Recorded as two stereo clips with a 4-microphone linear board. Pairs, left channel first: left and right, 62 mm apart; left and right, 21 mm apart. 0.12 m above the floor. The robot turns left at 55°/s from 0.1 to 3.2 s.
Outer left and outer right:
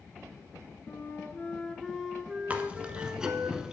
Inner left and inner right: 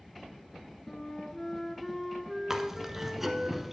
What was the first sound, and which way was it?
A flute, 65° left.